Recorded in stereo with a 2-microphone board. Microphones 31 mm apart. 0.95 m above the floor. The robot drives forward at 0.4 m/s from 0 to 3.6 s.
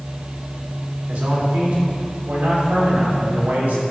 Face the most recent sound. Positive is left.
turn(degrees=-70)  # may be behind; listen again after turning